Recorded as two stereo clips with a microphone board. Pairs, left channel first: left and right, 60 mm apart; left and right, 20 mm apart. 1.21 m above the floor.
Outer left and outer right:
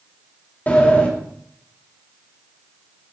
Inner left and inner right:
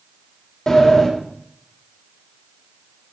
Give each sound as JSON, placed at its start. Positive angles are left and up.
{"t": 0.7, "sound": "a sliding door", "side_deg": 30, "distance_m": 3.0}